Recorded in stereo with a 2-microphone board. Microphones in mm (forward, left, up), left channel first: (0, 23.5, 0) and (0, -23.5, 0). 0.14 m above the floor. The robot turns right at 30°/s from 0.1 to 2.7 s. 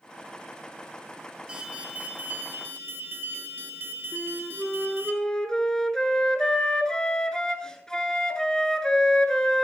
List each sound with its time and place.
1.5 s an alarm: 160° right, 1.5 m; by 5.1 s 120° right, 1.5 m
4.1 s a flute: 15° left (ahead or behind), 1.0 m